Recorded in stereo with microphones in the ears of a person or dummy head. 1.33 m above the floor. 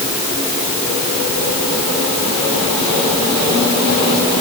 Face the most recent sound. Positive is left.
No sound to turn to.